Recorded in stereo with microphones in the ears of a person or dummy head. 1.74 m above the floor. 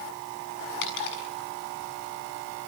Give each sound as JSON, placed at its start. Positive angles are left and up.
{"t": 0.8, "sound": "a dropped coin", "side_deg": 70, "distance_m": 6.5}